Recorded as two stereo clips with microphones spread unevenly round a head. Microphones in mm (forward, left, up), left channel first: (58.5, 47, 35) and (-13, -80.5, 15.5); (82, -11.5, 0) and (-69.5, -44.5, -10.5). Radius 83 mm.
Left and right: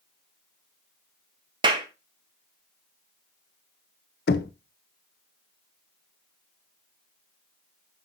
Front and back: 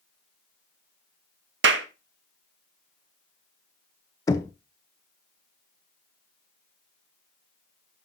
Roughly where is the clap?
Behind.